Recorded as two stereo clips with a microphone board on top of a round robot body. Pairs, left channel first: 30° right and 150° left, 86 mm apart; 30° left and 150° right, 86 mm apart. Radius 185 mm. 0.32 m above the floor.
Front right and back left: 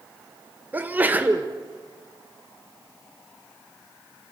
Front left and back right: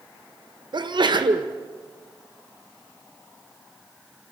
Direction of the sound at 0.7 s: 145° right.